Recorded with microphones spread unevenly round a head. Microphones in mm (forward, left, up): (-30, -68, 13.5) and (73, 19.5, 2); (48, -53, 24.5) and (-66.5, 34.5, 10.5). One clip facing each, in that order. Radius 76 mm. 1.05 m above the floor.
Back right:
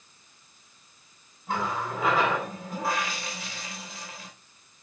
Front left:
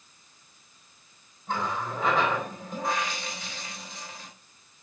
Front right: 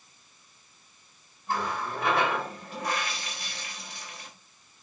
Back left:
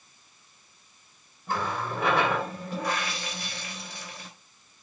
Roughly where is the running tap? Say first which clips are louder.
Back right 1 dB, back left 1 dB; behind left.